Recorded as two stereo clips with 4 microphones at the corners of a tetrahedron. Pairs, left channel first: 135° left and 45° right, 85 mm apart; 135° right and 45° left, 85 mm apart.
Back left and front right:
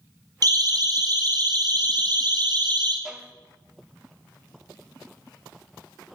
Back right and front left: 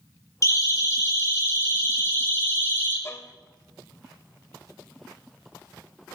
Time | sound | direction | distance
0.4 | a siren | 85° right | 6 m
3.0 | a violin | 125° right | 1.8 m